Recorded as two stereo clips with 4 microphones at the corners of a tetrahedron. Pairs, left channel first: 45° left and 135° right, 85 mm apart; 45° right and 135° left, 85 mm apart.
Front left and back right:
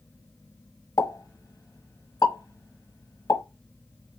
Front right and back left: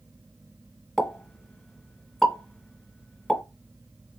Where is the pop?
40° left, 1.1 m.